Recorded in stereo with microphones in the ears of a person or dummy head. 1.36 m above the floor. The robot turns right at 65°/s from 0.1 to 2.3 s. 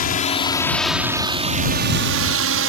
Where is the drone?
45° left (ahead or behind); by 2.7 s 65° right (ahead or behind).